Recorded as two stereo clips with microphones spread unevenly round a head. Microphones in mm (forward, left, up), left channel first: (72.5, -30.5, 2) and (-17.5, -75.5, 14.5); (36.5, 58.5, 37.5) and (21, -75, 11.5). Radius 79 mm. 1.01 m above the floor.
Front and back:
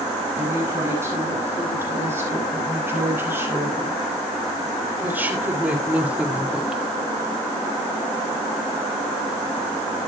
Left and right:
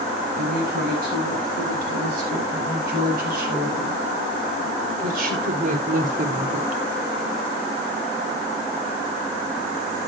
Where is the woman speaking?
90° right, 9.5 m; by 6.8 s 65° right, 1.8 m.